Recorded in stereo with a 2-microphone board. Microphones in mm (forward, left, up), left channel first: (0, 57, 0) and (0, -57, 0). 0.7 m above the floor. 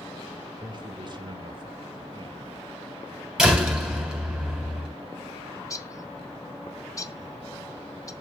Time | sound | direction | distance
0.6 | a man speaking | 40° right (ahead or behind) | 2 m
3.4 | a door slam | 5° right (ahead or behind) | 3.5 m
5.5 | a bird | 30° left (ahead or behind) | 0.9 m